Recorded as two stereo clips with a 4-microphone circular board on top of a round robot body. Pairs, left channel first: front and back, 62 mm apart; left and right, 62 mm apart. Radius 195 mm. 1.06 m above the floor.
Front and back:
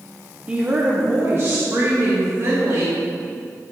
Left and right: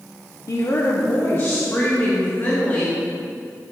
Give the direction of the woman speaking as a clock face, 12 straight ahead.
8 o'clock.